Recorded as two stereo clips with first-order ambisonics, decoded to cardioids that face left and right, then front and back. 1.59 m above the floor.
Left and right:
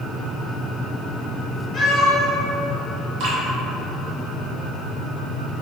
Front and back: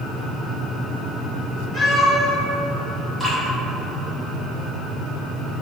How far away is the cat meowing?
About 0.9 m.